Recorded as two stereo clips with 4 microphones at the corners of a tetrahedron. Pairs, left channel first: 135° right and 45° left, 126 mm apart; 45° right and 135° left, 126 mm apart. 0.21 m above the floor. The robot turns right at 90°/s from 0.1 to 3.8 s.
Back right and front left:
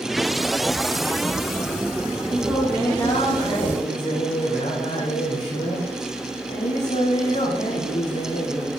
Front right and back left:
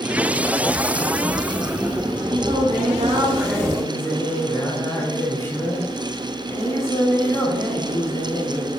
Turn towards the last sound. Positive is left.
turn(degrees=-110)